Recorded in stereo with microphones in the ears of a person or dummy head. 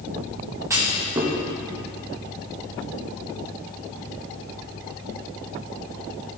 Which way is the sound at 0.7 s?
10° right (ahead or behind).